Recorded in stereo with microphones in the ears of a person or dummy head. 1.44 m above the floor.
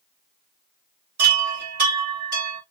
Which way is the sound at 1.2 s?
50° right (ahead or behind).